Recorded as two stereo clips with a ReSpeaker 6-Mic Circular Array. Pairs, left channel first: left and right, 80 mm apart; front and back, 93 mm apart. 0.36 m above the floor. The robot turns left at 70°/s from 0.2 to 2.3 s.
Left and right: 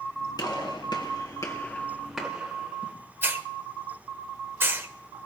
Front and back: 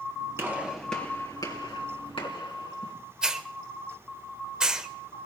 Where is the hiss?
105° right, 1.0 m.